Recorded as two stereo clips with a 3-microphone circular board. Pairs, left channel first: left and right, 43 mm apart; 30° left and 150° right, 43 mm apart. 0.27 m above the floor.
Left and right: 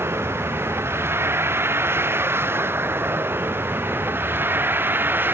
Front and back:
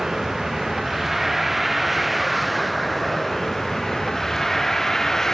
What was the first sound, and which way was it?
A vehicle, 70° right.